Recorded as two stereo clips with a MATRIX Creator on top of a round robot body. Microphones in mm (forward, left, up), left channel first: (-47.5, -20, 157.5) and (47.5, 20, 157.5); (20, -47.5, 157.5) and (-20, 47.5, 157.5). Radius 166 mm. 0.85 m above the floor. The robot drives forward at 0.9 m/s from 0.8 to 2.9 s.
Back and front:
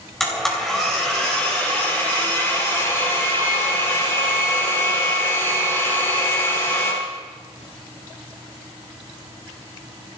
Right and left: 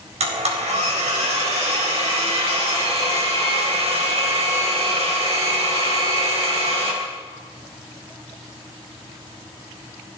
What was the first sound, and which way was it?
A blender, 115° left.